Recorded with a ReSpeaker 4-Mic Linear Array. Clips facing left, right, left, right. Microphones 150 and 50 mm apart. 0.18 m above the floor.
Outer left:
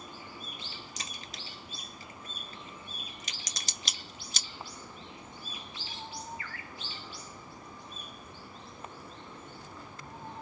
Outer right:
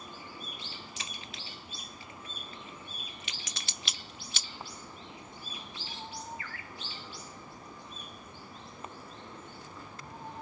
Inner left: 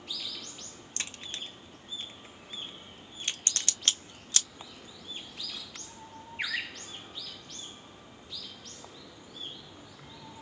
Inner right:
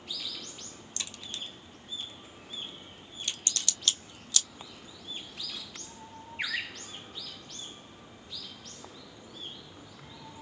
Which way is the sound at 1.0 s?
45° left (ahead or behind).